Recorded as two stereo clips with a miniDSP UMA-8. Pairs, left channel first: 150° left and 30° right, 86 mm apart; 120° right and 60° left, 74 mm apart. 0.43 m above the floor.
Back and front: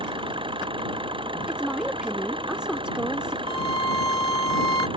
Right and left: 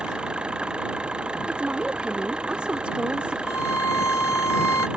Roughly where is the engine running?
Ahead.